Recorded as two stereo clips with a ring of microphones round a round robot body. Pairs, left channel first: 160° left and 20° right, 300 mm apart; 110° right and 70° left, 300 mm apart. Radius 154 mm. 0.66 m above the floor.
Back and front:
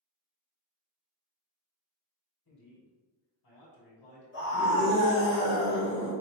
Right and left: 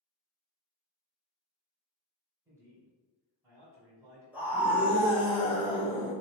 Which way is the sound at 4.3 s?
150° left.